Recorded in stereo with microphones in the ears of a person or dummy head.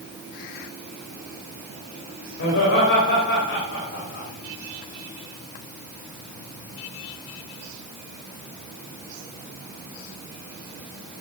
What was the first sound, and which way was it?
Laughter, 75° left (ahead or behind).